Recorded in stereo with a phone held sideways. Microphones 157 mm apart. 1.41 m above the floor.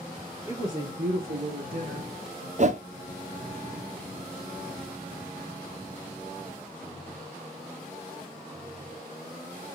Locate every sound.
0.5 s a woman speaking: 25° right (ahead or behind), 1.4 m; by 2.5 s 50° right (ahead or behind), 2.5 m
2.6 s a whoosh: 50° right (ahead or behind), 0.6 m